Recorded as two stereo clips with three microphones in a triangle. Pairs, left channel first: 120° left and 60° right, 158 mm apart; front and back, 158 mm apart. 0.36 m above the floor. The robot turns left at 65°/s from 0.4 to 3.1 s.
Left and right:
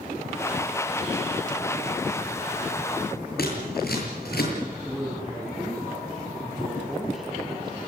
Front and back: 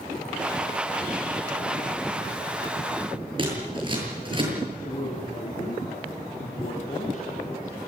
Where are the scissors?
120° left, 7.5 m.